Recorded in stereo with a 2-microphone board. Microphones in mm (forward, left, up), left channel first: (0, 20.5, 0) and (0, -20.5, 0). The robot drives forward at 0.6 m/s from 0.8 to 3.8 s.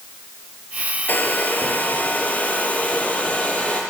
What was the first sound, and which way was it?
A hair dryer, 45° left (ahead or behind).